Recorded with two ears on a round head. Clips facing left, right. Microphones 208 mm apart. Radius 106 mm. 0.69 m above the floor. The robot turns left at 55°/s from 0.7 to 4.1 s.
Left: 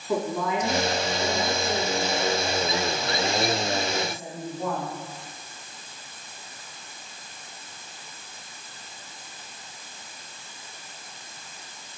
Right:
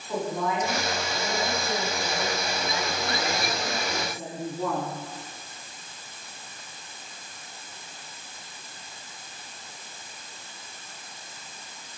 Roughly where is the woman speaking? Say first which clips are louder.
Left 2 dB; left.